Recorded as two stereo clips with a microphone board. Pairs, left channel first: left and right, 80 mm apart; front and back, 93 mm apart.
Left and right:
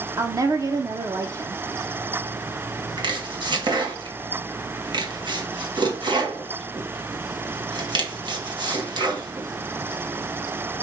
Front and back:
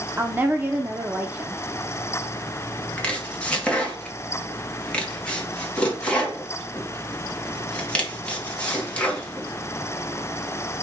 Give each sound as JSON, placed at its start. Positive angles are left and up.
{"t": 0.2, "sound": "a woman speaking", "azimuth_deg": -115, "distance_m": 0.9}
{"t": 3.0, "sound": "chopping", "azimuth_deg": -75, "distance_m": 1.7}